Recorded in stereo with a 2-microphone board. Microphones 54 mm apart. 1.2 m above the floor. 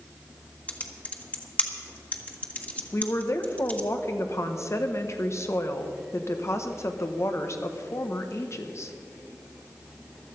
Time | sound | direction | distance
0.7 | typing on a keyboard | 25° left (ahead or behind) | 1.3 m
2.9 | a woman speaking | 55° left (ahead or behind) | 1.3 m